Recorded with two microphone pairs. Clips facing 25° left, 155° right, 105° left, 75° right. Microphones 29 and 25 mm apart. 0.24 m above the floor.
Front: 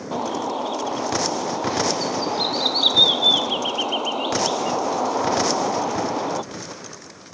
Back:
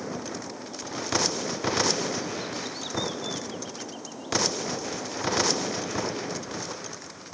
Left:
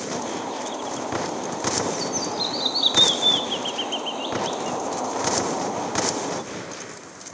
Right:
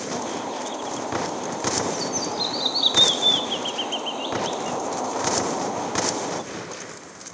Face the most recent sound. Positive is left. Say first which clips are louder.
# front 11 dB, even
turn(degrees=15)